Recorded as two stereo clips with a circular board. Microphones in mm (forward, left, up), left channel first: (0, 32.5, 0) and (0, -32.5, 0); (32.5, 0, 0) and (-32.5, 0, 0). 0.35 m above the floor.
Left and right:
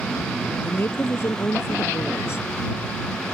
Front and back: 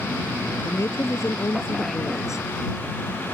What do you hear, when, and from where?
0.6 s a woman speaking: 40° left